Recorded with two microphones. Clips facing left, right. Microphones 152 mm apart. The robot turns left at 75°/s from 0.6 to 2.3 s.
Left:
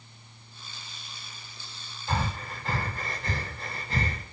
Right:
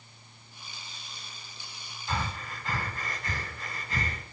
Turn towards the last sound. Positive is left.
turn(degrees=30)  # may be behind; listen again after turning